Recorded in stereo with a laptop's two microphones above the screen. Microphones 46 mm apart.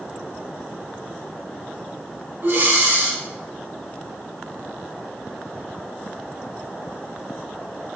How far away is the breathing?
About 1.0 m.